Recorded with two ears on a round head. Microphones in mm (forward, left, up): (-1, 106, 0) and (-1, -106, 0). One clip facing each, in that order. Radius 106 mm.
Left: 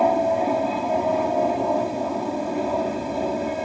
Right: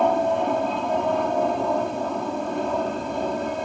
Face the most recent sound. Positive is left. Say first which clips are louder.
# left 1 dB
turn(degrees=5)  # may be behind; listen again after turning